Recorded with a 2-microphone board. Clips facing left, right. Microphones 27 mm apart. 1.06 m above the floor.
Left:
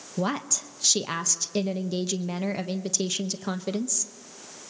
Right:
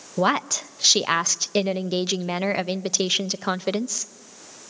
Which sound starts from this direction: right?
A woman speaking, at 0.2 s.